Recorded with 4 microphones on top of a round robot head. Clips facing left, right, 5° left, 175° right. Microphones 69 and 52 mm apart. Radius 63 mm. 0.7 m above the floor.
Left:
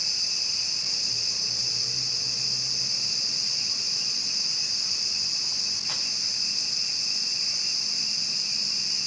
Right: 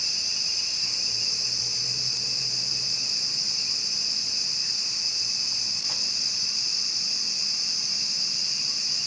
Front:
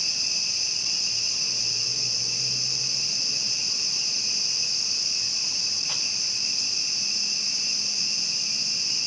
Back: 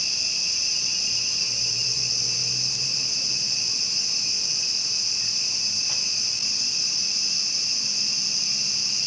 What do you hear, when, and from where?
Only background noise.